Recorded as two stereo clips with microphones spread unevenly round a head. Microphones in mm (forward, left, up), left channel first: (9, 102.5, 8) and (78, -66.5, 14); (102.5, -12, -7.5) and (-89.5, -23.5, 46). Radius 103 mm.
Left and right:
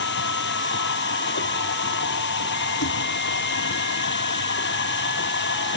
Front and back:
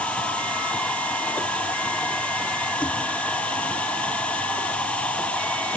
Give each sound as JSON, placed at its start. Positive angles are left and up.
{"t": 0.0, "sound": "a machine running", "azimuth_deg": 90}